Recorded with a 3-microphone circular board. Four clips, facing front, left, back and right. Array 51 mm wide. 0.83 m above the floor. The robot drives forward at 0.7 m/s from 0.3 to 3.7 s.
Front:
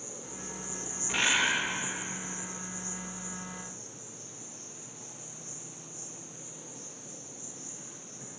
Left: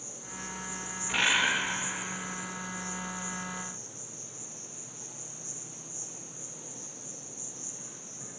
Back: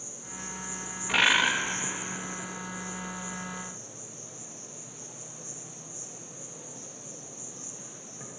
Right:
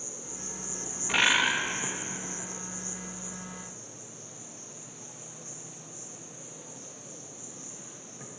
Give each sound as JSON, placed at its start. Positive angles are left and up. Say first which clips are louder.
{"t": 0.0, "sound": "an insect", "louder": "left 1 dB, even", "azimuth_deg": -40, "distance_m": 1.1}
{"t": 1.1, "sound": "a bird", "louder": "right 2 dB, back 4 dB", "azimuth_deg": -155, "distance_m": 1.3}